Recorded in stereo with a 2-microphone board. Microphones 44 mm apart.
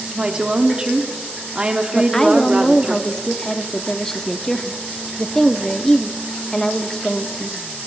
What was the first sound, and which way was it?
A woman speaking, 25° right (ahead or behind).